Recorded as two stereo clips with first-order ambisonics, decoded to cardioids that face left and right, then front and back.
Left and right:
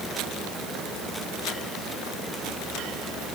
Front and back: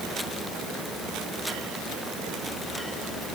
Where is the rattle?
No rattle in this recording.